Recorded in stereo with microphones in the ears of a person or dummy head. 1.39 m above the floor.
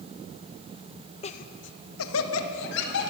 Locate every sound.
1.2 s laughter: 30° left (ahead or behind), 0.9 m; by 3.1 s 65° left (ahead or behind), 2.5 m